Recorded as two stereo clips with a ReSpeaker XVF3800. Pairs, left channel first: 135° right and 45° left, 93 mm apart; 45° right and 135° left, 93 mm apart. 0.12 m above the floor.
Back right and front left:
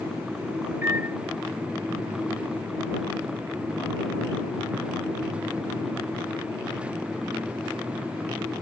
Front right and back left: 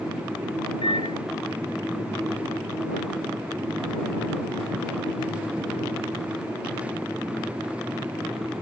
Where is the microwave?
20° right.